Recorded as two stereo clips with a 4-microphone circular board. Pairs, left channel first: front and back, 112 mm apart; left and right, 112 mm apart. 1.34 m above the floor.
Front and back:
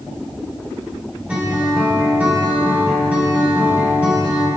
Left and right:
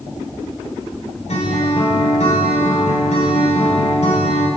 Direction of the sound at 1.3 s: 105° left.